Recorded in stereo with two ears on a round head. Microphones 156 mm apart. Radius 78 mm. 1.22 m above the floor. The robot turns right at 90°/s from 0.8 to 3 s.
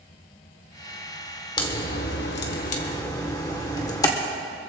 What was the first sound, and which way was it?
A crack, 25° left (ahead or behind).